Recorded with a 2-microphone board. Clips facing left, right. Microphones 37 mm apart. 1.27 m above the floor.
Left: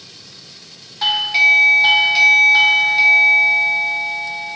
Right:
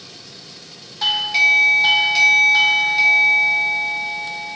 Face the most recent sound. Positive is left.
turn(degrees=10)  # may be behind; listen again after turning